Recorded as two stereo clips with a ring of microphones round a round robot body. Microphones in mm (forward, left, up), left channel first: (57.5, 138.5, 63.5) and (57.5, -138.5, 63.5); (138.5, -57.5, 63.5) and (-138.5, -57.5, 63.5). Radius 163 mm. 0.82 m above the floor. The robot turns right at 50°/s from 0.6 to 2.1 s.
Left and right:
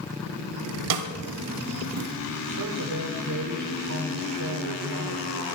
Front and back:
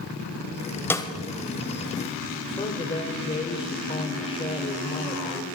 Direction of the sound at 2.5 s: 70° right.